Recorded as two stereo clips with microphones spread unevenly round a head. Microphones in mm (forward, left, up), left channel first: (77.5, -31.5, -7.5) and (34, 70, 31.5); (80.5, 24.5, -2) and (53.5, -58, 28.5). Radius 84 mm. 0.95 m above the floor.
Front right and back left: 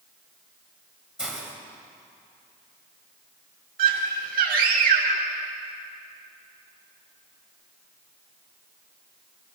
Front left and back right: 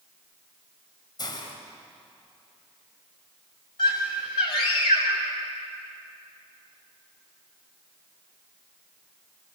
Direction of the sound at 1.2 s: 30° left.